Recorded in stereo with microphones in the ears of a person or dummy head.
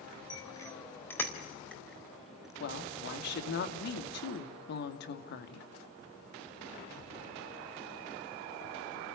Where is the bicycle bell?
20° left (ahead or behind), 3 m; by 2.5 s centre (ahead or behind), 4.5 m.